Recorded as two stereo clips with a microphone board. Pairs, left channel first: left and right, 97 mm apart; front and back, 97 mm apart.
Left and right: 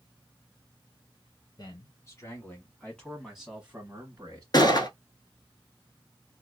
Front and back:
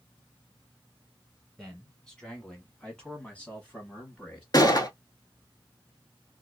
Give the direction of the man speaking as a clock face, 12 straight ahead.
9 o'clock.